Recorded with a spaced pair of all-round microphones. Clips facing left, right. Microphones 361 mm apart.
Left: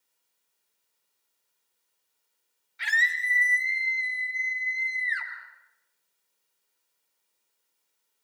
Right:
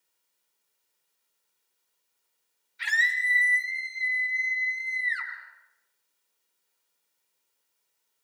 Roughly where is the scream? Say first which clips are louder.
Left 1 dB; left.